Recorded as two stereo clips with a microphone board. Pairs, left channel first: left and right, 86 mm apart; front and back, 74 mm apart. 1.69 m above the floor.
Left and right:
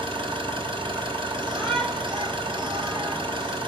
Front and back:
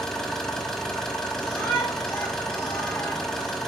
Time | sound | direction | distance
0.0 | an engine running | 80° right | 3.5 m
1.3 | a shout | 60° right | 6.5 m